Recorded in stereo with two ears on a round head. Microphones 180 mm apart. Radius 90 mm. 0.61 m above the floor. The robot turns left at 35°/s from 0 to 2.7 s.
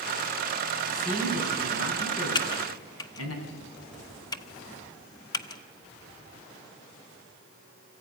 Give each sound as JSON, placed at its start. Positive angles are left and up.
{"t": 0.9, "sound": "a man speaking", "azimuth_deg": 145, "distance_m": 5.5}
{"t": 2.4, "sound": "typing on a keyboard", "side_deg": 20, "distance_m": 0.8}